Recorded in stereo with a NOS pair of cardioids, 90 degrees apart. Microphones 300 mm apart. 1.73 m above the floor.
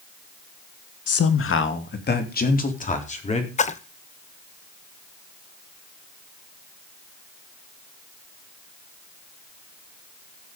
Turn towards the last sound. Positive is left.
turn(degrees=20)